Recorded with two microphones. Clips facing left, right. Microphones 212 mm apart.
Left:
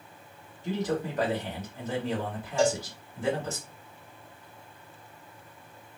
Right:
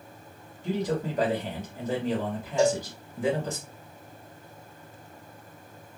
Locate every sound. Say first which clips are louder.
0.6 s a man speaking: right 1 dB; 15° right (ahead or behind), 1.6 m
2.6 s a cowbell: right 2 dB; 15° right (ahead or behind), 1.4 m